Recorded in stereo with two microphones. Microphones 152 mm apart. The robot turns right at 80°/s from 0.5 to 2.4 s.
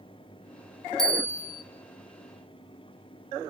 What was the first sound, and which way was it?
A bell, 5° left.